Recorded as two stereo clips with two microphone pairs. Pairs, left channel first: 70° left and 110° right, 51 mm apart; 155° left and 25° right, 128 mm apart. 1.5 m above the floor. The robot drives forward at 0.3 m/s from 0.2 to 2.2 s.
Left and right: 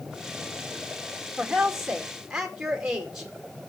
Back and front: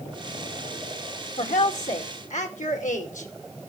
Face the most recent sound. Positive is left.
turn(degrees=165)